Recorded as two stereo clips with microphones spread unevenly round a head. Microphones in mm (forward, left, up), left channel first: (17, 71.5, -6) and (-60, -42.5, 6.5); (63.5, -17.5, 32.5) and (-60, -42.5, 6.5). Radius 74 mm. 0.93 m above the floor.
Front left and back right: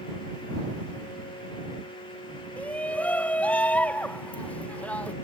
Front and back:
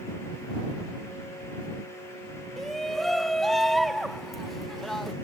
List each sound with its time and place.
2.6 s a shout: 120° left